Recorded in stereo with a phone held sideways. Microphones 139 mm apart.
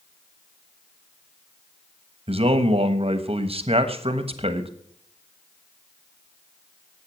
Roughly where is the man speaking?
Right.